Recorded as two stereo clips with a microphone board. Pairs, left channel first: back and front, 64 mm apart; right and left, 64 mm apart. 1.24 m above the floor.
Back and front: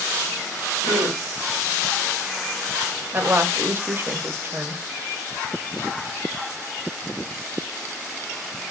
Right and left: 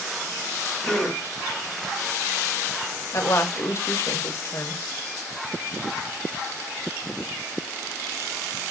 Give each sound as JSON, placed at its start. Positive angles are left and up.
{"t": 0.8, "sound": "a gasp", "azimuth_deg": 0, "distance_m": 1.8}
{"t": 3.1, "sound": "a woman speaking", "azimuth_deg": -50, "distance_m": 0.7}